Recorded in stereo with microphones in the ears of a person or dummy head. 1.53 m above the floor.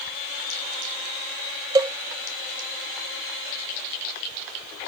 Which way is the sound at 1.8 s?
20° right (ahead or behind).